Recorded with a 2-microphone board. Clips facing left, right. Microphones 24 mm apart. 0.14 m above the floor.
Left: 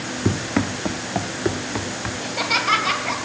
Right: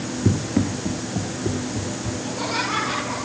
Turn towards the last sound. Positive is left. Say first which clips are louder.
# left 5 dB
turn(degrees=50)  # may be behind; listen again after turning